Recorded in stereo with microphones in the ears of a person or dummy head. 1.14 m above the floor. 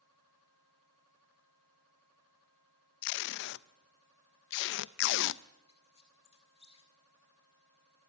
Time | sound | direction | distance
3.0 | tape being pulled | 60° left (ahead or behind) | 0.5 m
5.7 | a squeak | 25° left (ahead or behind) | 2.5 m